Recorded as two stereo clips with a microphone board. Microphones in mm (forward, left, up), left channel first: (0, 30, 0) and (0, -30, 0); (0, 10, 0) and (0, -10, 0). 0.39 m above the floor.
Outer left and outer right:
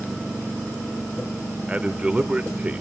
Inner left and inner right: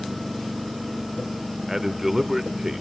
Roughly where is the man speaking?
Right.